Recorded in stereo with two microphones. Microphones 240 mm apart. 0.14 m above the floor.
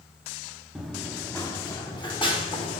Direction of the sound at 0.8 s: Centre (ahead or behind).